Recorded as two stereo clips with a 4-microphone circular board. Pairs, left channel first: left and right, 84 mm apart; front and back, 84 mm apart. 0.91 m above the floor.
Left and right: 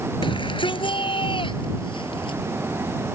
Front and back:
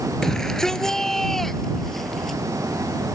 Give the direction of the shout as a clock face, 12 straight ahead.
9 o'clock.